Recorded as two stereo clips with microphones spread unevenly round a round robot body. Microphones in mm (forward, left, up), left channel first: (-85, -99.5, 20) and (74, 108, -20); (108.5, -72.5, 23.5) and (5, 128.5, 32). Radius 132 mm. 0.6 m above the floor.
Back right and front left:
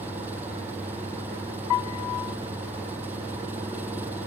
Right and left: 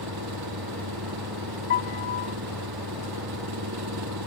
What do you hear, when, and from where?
0.0 s an engine running: 135° left
1.7 s a piano: 105° right